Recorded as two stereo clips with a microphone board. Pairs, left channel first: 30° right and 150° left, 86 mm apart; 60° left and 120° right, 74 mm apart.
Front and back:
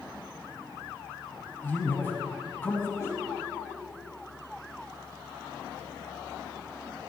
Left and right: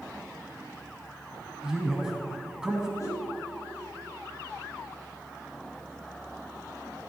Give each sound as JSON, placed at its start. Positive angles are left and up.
{"t": 1.6, "sound": "a man speaking", "azimuth_deg": -55, "distance_m": 1.1}
{"t": 3.0, "sound": "a whoosh", "azimuth_deg": 20, "distance_m": 4.0}